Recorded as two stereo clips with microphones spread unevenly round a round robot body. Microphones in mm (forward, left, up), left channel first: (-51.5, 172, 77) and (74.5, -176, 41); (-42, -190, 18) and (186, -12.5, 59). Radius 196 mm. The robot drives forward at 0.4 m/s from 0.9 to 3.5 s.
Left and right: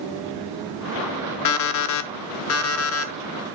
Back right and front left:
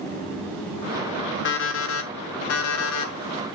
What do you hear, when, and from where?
1.4 s an alarm clock: 155° left, 0.8 m; by 3.1 s 165° left, 1.4 m